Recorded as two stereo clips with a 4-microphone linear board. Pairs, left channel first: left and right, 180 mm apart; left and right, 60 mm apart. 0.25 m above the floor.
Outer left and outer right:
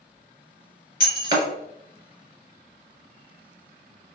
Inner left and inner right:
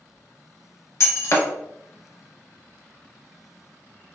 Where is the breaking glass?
55° left (ahead or behind), 1.1 m.